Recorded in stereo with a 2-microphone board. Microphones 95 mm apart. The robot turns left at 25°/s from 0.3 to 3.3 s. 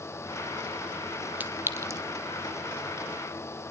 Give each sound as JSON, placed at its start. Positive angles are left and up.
{"t": 1.4, "sound": "a clink", "side_deg": -15, "distance_m": 2.0}